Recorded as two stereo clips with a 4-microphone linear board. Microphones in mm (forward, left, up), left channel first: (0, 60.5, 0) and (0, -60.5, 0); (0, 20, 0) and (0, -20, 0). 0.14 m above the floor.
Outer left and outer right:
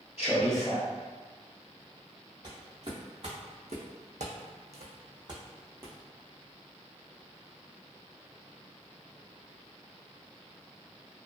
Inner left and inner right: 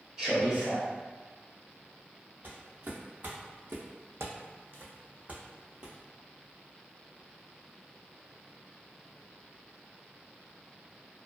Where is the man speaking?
15° right (ahead or behind), 1.6 m.